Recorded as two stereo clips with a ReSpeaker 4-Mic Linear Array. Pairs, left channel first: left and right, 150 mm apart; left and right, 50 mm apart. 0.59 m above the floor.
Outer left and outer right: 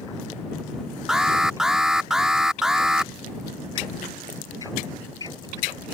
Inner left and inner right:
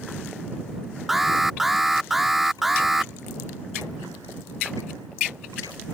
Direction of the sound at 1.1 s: 5° right (ahead or behind).